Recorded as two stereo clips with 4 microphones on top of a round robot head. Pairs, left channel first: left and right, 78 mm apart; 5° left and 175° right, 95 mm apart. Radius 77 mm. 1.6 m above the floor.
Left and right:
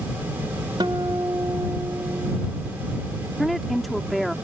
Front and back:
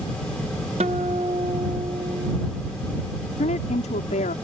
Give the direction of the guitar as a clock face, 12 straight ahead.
5 o'clock.